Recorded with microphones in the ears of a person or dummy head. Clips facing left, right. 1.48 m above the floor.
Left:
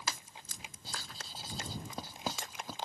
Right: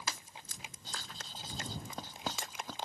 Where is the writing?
10° left (ahead or behind).